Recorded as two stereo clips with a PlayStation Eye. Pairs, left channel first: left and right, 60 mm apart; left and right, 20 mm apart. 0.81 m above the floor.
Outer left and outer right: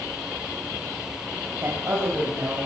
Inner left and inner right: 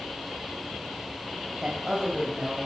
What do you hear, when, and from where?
1.6 s a woman speaking: 60° right (ahead or behind), 4 m; by 2.6 s 50° right (ahead or behind), 4.5 m